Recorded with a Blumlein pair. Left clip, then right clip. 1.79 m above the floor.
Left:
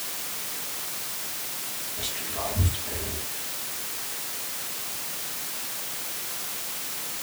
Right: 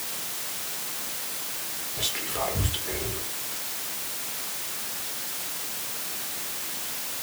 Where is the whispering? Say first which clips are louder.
Right 4 dB; 30° right, 1.1 m.